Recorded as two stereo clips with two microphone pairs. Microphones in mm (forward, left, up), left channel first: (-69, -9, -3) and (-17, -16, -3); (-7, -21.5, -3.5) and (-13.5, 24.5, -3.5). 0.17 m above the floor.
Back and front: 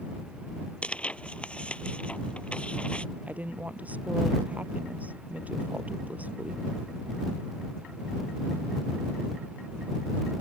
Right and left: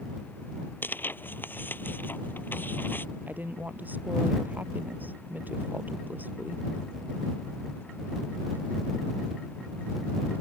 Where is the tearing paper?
120° right.